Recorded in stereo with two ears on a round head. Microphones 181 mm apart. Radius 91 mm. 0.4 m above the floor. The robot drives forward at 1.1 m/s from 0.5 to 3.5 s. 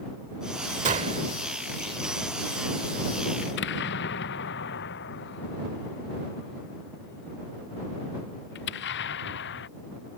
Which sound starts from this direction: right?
A gunshot, at 0.8 s.